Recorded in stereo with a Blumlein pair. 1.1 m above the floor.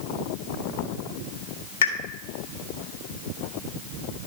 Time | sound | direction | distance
1.8 | a pop | 60° left | 1.8 m